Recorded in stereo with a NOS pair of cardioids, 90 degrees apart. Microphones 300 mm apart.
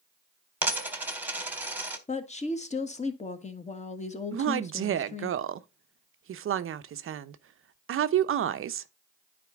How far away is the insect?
I don't hear an insect.